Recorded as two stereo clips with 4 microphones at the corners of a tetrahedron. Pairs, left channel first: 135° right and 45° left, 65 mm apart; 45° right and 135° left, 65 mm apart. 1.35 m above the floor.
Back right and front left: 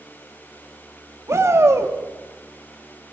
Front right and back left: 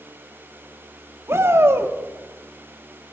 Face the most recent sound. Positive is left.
turn(degrees=85)